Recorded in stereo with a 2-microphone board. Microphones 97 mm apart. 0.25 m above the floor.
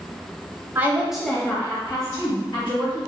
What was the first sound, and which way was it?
A woman speaking, 20° right (ahead or behind).